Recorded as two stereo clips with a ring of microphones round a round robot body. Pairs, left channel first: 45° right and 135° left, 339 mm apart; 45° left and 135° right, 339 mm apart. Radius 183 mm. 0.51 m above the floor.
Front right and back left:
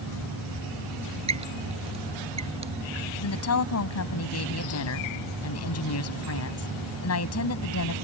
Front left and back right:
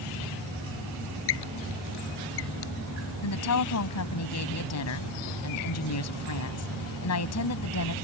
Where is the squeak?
60° left.